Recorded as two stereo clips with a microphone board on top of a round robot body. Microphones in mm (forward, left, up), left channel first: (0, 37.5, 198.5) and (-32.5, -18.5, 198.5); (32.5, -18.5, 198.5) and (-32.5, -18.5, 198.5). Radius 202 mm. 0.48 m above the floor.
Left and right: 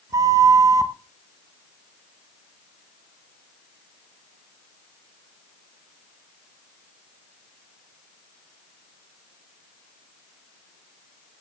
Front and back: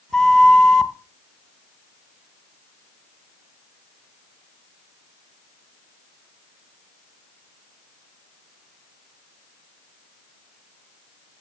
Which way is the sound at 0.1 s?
80° right.